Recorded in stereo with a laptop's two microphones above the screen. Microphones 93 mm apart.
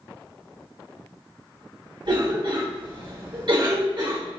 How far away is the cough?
About 1.3 m.